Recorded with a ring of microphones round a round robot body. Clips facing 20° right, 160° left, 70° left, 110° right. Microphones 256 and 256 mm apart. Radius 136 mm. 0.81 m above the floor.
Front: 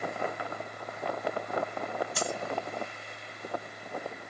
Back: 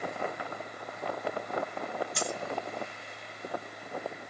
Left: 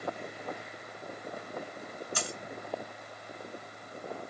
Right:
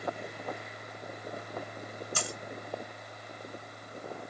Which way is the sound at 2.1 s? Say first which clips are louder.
Front 1 dB, even; 105° right.